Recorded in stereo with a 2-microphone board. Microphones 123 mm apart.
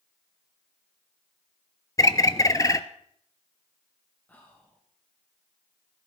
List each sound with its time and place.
2.0 s a bird: 30° left (ahead or behind), 0.7 m
4.3 s whispering: 15° left (ahead or behind), 2 m